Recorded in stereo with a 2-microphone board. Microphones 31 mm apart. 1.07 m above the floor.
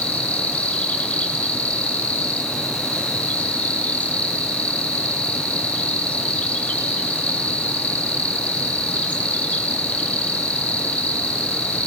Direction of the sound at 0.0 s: 50° left (ahead or behind).